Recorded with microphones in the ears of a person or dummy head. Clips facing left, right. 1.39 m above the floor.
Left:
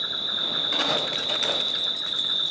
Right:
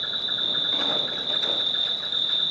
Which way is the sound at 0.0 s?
65° left (ahead or behind).